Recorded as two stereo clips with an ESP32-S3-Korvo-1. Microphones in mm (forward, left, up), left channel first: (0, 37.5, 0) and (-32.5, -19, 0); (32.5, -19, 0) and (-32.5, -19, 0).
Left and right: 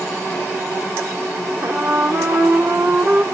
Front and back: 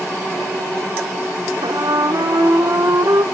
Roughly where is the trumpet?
Behind.